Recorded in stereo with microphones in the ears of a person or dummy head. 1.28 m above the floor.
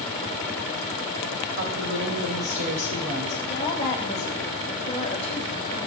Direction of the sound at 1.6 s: 50° right (ahead or behind).